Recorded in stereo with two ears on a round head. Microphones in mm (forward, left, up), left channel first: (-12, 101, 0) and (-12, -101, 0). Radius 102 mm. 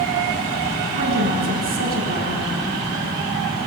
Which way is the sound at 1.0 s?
45° right (ahead or behind).